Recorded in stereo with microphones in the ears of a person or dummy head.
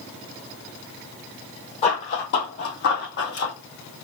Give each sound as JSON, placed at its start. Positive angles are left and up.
{"t": 1.8, "sound": "running footsteps", "side_deg": 40, "distance_m": 2.0}